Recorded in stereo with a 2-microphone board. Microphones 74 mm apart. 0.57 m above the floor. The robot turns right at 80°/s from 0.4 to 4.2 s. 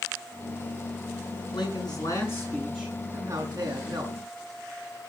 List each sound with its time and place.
1.5 s a man speaking: 85° left, 6.5 m; by 4.2 s 65° right, 6.5 m